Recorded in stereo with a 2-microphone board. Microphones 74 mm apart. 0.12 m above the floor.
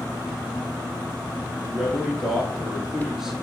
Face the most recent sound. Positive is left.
turn(degrees=-5)  # may be behind; listen again after turning